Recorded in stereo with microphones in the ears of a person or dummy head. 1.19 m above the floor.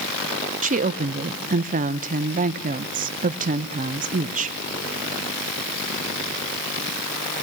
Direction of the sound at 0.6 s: 35° right (ahead or behind).